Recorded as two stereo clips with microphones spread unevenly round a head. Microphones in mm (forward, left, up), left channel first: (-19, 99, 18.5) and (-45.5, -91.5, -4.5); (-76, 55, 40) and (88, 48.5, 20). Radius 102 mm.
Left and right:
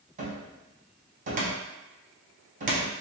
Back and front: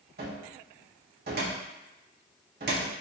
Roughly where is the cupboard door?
Ahead right.